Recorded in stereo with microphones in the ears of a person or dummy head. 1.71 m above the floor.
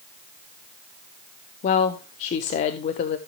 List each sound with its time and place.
1.6 s a woman speaking: 45° left (ahead or behind), 0.6 m